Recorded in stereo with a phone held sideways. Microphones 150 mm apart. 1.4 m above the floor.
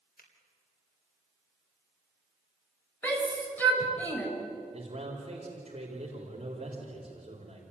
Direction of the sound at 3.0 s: 10° left (ahead or behind).